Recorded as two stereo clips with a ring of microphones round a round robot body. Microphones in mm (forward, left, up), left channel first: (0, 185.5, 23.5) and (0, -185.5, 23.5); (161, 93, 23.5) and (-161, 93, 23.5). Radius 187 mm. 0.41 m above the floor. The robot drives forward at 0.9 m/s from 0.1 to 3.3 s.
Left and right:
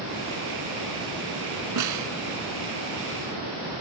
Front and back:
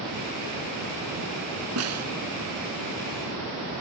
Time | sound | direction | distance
1.8 | a snare drum | 130° right | ?